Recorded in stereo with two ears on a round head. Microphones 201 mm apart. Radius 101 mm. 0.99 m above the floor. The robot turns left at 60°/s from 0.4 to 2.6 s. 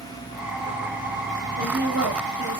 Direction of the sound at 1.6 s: 70° right.